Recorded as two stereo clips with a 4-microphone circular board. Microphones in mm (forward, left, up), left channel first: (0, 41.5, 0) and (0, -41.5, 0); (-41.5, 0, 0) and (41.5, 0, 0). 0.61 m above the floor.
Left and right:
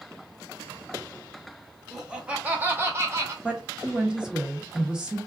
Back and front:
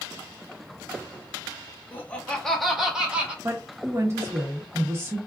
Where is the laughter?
170° right, 0.7 m; by 3.3 s 65° right, 0.9 m.